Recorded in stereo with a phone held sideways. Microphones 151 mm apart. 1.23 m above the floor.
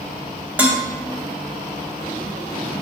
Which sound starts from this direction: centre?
Dishes clattering, at 0.6 s.